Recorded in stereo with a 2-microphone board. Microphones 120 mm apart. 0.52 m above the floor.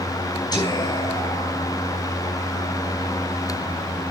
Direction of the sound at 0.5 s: 35° left (ahead or behind).